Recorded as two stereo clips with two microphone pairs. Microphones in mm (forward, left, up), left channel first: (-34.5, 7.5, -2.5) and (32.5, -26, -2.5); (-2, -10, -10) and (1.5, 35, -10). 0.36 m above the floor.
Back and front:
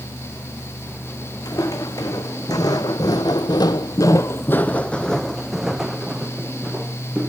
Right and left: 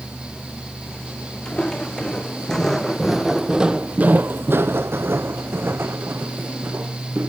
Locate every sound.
1.4 s footsteps: 165° right, 1.4 m; by 7.3 s 50° left, 1.7 m